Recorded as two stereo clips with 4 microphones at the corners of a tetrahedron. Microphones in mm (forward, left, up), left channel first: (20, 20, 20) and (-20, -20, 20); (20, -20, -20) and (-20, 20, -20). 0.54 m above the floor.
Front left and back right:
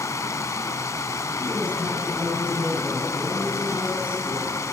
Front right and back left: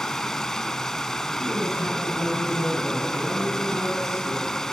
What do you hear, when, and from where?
0.0 s running water: 35° left, 1.0 m
1.4 s a woman speaking: 160° left, 5.5 m